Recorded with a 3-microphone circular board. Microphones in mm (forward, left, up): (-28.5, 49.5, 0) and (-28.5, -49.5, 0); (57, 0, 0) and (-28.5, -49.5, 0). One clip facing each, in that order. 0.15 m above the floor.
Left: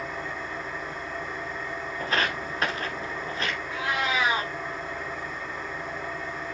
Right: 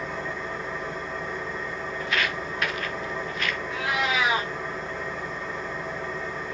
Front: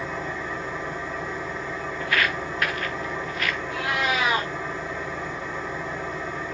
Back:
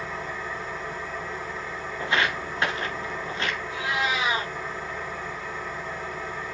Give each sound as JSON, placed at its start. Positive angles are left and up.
{"t": 0.0, "sound": "an engine running", "azimuth_deg": -20, "distance_m": 6.0}
{"t": 2.0, "sound": "footsteps", "azimuth_deg": 145, "distance_m": 1.2}
{"t": 3.7, "sound": "a cat meowing", "azimuth_deg": 0, "distance_m": 5.5}